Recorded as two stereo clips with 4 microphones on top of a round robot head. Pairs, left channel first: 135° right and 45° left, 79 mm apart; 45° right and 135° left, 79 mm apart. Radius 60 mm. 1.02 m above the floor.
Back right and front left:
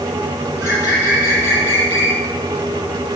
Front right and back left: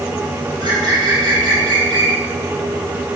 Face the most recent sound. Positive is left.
turn(degrees=165)